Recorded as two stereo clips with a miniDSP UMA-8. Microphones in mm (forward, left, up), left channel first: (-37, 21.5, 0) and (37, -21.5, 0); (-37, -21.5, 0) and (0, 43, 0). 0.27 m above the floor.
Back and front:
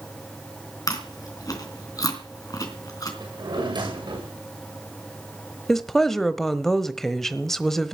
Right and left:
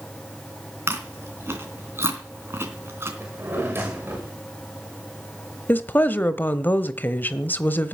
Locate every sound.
0.9 s chewing: 110° left, 3 m
3.2 s a drawer: straight ahead, 6.5 m
5.7 s a woman speaking: 130° right, 1.0 m